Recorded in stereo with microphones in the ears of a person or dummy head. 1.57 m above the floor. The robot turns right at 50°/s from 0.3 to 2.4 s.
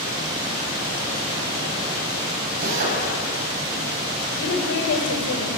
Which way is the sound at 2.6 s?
50° right (ahead or behind).